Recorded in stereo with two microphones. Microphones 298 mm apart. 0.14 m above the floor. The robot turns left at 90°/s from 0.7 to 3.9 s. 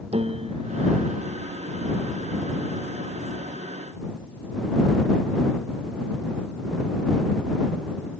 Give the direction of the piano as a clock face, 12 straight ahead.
5 o'clock.